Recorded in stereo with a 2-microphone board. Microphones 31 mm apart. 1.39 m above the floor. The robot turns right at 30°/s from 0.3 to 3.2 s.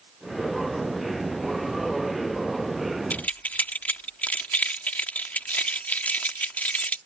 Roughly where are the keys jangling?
Left.